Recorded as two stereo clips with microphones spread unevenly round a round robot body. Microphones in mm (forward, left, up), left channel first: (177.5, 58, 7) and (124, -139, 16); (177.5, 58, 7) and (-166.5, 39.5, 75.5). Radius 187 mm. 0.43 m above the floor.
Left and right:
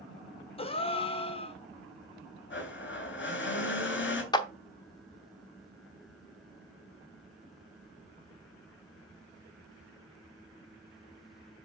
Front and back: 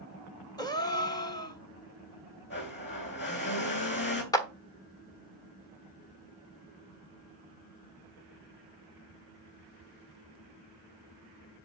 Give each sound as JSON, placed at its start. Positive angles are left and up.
{"t": 0.6, "sound": "a gasp", "azimuth_deg": 50, "distance_m": 1.2}
{"t": 2.5, "sound": "a blender", "azimuth_deg": 55, "distance_m": 3.0}
{"t": 4.3, "sound": "a clap", "azimuth_deg": 40, "distance_m": 0.9}